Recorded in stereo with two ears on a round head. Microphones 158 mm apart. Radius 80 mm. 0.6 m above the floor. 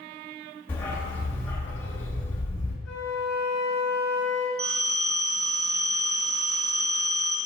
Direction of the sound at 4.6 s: 55° right (ahead or behind).